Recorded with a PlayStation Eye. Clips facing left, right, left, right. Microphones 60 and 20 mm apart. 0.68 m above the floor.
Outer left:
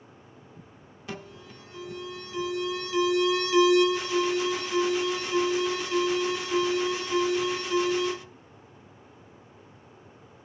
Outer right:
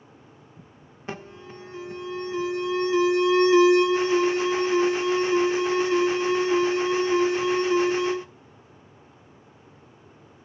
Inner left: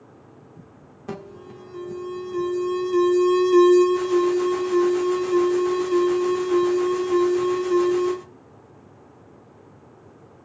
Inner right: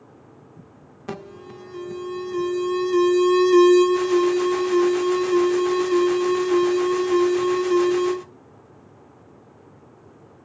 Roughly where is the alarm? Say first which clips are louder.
Outer right 3 dB, inner right 1 dB; right.